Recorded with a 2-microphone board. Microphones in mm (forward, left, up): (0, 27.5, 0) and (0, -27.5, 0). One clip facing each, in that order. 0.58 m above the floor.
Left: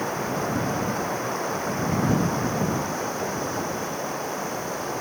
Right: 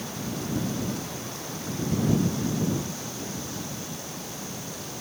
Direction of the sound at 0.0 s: 45° left (ahead or behind).